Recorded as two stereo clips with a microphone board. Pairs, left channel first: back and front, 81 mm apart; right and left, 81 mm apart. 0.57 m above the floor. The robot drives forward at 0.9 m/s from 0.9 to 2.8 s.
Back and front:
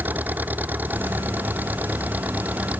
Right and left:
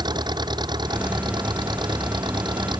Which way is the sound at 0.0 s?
65° left.